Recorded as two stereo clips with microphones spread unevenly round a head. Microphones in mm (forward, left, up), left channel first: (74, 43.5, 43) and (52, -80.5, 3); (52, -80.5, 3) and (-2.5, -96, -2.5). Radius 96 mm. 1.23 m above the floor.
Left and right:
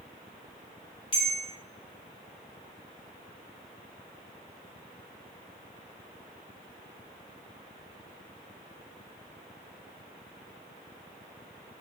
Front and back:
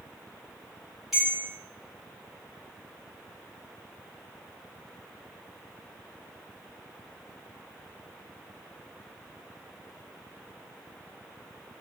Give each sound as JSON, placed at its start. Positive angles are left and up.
{"t": 1.1, "sound": "a bell", "azimuth_deg": 105, "distance_m": 0.7}